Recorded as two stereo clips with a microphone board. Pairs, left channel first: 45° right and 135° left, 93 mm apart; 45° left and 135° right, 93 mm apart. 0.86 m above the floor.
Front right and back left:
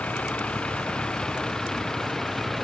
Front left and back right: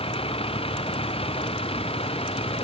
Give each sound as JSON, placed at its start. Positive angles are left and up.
{"t": 0.0, "sound": "a vehicle", "azimuth_deg": 30}